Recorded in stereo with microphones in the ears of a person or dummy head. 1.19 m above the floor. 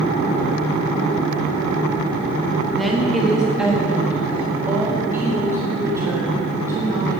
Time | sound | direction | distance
2.7 | a woman speaking | centre (ahead or behind) | 1.3 m